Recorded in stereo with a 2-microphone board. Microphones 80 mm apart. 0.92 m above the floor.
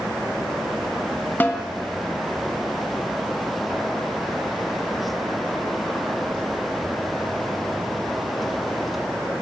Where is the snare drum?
25° left (ahead or behind), 1.5 m.